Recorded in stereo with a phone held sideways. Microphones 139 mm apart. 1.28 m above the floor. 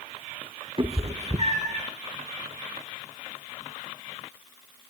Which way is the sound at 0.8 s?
40° right (ahead or behind).